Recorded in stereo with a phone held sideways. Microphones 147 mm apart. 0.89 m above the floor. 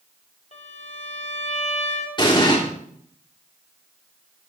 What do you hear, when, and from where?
0.5 s a violin: 50° left (ahead or behind), 1.8 m
2.2 s an explosion: 30° left (ahead or behind), 3 m